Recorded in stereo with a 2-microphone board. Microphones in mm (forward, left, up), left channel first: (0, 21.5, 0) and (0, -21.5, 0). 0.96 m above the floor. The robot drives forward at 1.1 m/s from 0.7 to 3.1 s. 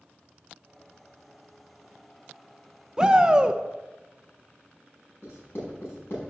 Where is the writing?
55° left (ahead or behind), 5 m.